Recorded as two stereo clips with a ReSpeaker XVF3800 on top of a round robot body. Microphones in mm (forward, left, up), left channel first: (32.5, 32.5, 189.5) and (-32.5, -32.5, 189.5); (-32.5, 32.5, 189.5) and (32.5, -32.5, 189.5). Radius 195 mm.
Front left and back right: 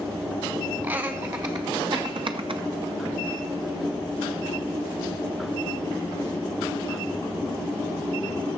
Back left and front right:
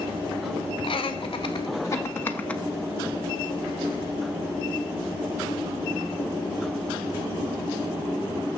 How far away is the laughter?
About 1.3 m.